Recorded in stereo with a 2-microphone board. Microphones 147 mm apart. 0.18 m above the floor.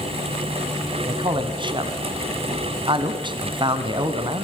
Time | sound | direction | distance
1.1 | a man speaking | 35° right (ahead or behind) | 2.0 m